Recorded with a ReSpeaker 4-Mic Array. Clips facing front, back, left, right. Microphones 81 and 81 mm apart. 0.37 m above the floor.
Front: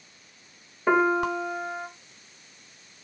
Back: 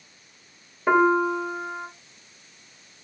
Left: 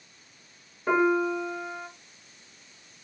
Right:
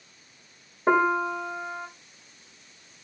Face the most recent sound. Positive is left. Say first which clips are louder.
# back 3 dB, right 1 dB
turn(degrees=-95)